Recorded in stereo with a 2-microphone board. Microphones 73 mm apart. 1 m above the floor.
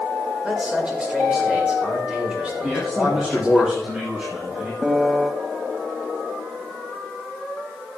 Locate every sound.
0.4 s a man speaking: 15° right (ahead or behind), 4 m
2.6 s a man speaking: 10° right (ahead or behind), 2.5 m
4.8 s a piano: 15° right (ahead or behind), 1.2 m